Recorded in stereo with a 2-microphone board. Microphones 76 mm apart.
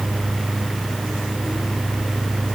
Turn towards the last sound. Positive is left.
No sound to turn to.